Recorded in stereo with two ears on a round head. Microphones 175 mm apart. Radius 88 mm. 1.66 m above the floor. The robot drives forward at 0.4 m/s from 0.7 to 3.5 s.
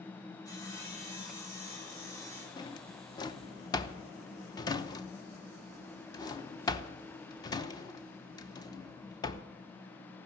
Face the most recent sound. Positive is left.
turn(degrees=20)  # may be behind; listen again after turning